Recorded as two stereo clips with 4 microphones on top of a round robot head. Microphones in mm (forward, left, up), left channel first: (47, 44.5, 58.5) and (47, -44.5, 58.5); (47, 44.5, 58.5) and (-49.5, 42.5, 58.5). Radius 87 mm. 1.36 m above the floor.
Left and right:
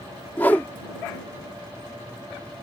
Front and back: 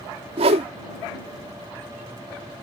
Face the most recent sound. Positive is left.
turn(degrees=170)